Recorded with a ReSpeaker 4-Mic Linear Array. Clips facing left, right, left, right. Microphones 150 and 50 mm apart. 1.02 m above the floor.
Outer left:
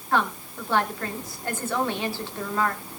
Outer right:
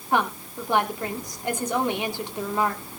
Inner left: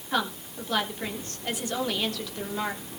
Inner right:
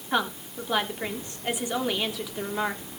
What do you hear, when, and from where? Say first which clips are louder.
0.1 s a woman speaking: outer right 1 dB, inner right 2 dB; 15° right (ahead or behind), 3 m